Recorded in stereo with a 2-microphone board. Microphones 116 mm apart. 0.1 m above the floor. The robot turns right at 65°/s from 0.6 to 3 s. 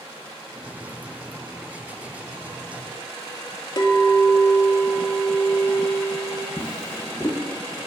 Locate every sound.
3.8 s a clink: 40° left (ahead or behind), 0.9 m
6.6 s a drawer: 25° left (ahead or behind), 1.3 m